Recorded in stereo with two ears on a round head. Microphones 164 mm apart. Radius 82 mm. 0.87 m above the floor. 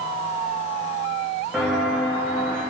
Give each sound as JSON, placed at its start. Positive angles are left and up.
{"t": 1.5, "sound": "footsteps", "side_deg": 0, "distance_m": 4.0}